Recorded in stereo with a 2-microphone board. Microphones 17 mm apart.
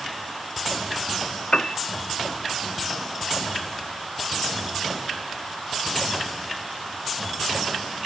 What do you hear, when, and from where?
1.5 s a piano: 60° left (ahead or behind)